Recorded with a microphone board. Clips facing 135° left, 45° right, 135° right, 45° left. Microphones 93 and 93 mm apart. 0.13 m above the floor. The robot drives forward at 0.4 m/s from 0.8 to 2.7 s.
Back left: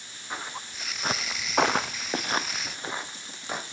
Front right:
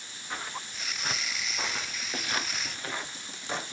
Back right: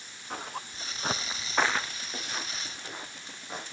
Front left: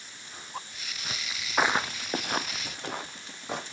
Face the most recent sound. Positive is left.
turn(degrees=55)